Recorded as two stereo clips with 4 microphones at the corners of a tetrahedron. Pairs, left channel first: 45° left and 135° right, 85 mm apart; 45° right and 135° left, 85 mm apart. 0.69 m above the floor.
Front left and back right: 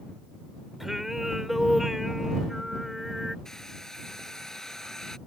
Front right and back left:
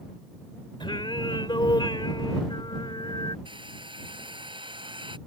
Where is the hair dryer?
130° left.